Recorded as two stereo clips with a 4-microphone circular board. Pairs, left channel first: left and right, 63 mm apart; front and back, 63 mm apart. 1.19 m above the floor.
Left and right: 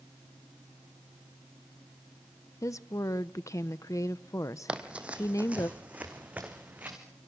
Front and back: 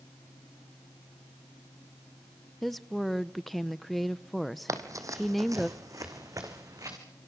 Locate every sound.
2.6 s a woman speaking: 90° left, 0.6 m
4.7 s running footsteps: 160° right, 2.5 m; by 7.0 s 155° right, 5.5 m